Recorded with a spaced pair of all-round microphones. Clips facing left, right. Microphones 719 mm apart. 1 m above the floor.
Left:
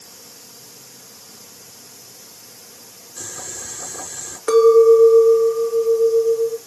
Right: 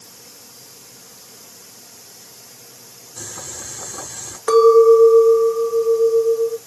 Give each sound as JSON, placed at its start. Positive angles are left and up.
{"t": 3.2, "sound": "boiling", "side_deg": -80, "distance_m": 4.0}
{"t": 4.5, "sound": "a clink", "side_deg": -30, "distance_m": 1.0}